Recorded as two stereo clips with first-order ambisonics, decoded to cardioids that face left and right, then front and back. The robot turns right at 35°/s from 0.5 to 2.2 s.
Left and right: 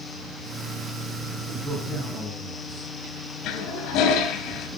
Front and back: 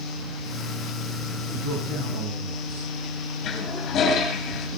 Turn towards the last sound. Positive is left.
turn(degrees=55)